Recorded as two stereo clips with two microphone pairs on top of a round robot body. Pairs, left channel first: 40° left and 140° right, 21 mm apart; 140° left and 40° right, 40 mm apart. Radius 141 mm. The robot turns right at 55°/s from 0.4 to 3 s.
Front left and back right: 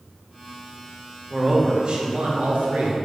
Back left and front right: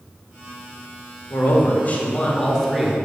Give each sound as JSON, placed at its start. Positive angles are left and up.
{"t": 1.3, "sound": "a man speaking", "azimuth_deg": 150, "distance_m": 1.7}